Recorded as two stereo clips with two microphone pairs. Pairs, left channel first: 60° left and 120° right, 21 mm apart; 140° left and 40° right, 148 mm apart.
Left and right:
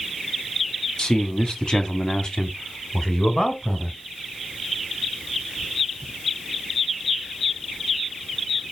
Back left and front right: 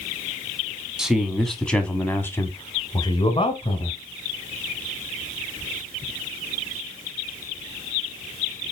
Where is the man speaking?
45° left, 2.0 m; by 4.0 s 115° left, 1.9 m.